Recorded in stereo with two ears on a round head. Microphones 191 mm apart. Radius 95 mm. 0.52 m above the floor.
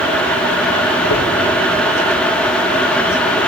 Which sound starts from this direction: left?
A dropped coin, at 1.1 s.